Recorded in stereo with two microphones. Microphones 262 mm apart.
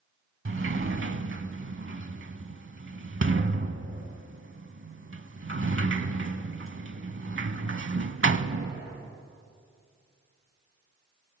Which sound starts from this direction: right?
A sliding door, at 0.5 s.